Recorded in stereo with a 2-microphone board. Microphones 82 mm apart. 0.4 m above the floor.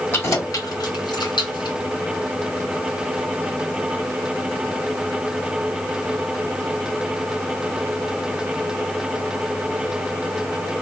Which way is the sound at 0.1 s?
30° left (ahead or behind).